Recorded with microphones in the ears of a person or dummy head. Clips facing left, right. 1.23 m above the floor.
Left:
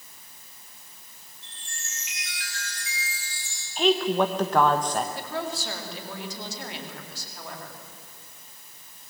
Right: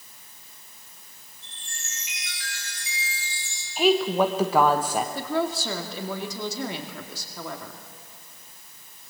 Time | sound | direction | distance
1.4 | a chime | 70° right (ahead or behind) | 7 m
3.8 | a woman speaking | 5° right (ahead or behind) | 1.0 m
5.2 | a woman speaking | 80° right | 2.5 m